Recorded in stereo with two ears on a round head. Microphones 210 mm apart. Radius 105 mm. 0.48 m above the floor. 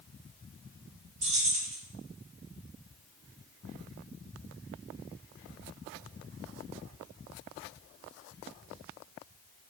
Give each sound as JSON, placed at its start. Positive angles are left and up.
{"t": 1.2, "sound": "keys jangling", "side_deg": -30, "distance_m": 0.9}